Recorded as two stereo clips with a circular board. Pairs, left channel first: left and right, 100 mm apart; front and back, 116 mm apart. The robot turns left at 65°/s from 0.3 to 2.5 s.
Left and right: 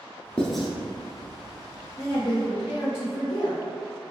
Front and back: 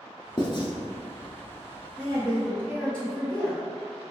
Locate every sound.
0.4 s writing: 15° left, 0.9 m; by 0.7 s 5° right, 0.9 m
2.0 s a woman speaking: 110° left, 1.6 m; by 3.6 s 75° left, 1.6 m